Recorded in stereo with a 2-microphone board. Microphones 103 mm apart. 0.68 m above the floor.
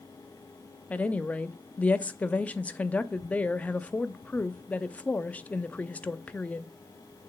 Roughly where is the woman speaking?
Centre.